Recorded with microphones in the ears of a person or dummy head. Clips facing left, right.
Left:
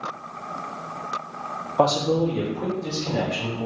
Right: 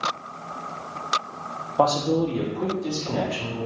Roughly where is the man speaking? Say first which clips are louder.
Left 1 dB; centre.